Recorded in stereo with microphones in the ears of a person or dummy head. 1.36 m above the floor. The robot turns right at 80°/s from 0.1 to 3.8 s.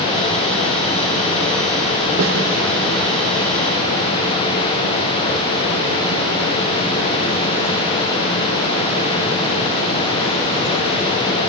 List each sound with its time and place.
2.2 s a snare drum: 70° right (ahead or behind), 3 m; by 2.4 s 85° right, 3 m